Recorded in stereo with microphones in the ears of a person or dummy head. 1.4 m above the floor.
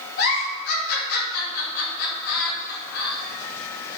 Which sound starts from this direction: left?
A giggle, at 0.2 s.